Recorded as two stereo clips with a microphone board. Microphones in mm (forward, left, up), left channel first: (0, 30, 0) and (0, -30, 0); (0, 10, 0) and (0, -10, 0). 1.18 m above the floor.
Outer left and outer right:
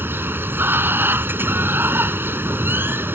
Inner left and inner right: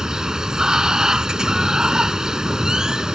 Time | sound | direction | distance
0.0 | running water | 35° right (ahead or behind) | ?